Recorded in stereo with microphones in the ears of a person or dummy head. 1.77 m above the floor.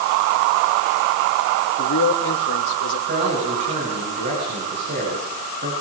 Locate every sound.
1.8 s a man speaking: 80° left, 4 m; by 3.0 s 85° left, 5 m
3.1 s a man speaking: 50° right (ahead or behind), 9 m